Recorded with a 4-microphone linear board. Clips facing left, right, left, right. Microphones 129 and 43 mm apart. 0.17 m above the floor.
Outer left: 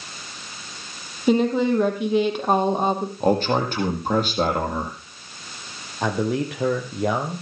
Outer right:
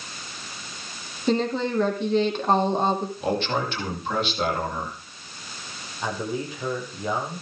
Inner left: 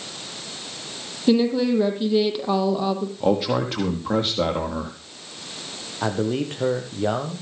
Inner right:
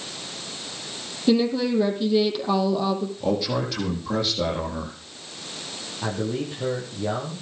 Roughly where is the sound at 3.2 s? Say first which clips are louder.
Outer left 8 dB, inner left 6 dB; left.